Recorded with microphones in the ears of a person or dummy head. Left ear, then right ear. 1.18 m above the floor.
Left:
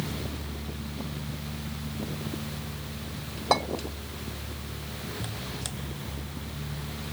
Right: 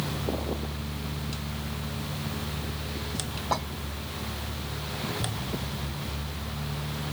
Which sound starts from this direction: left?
A clink, at 3.5 s.